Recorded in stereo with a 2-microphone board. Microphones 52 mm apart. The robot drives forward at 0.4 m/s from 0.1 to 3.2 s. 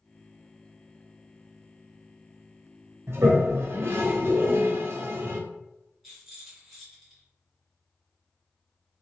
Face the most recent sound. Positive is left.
turn(degrees=-5)  # may be behind; listen again after turning